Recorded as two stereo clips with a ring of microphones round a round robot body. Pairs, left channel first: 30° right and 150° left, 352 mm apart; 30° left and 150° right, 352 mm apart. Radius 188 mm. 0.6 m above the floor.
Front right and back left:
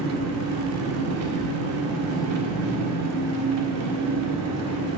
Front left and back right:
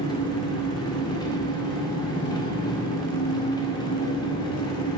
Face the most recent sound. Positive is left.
turn(degrees=110)